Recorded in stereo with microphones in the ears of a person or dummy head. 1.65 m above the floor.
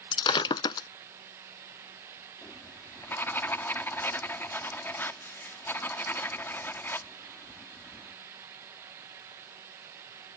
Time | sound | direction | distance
0.1 | breaking glass | 30° left (ahead or behind) | ?
2.4 | writing | 5° left (ahead or behind) | ?